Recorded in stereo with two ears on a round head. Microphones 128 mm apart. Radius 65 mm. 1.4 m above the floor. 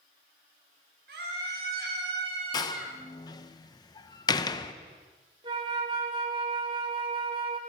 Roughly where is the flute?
Right.